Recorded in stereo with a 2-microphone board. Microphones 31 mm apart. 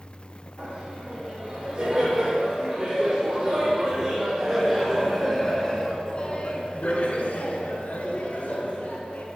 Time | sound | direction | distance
0.6 | laughter | 35° right (ahead or behind) | 4.5 m